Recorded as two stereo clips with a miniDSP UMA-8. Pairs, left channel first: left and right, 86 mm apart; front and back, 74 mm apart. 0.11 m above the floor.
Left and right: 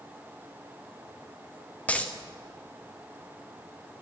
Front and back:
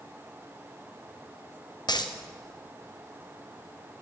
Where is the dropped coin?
15° left, 1.8 m.